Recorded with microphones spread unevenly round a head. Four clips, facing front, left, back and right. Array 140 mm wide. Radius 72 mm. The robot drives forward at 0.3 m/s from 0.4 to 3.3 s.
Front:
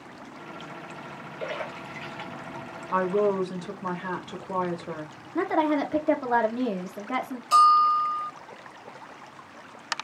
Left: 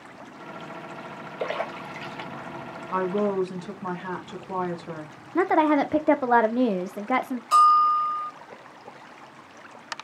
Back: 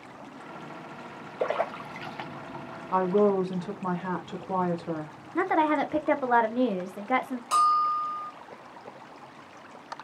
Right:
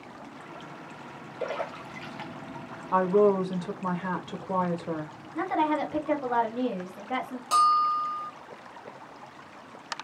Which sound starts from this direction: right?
A woman speaking, at 2.9 s.